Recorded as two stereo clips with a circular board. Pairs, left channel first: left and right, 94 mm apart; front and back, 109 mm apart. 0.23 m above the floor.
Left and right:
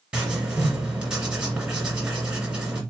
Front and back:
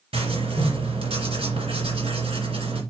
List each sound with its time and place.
0.1 s writing: 170° right, 2 m